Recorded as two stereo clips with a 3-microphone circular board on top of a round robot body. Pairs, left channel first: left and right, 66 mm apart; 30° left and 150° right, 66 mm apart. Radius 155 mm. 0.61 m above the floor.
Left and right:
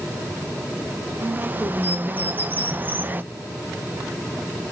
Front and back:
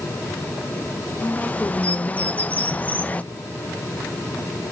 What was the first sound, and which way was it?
A bird, 35° right.